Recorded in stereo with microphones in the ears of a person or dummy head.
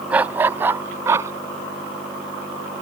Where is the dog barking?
15° right (ahead or behind); by 1.3 s 25° right (ahead or behind).